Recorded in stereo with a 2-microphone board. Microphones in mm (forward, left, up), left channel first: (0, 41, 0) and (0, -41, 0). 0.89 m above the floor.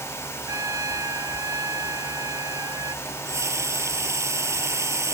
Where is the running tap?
30° right (ahead or behind).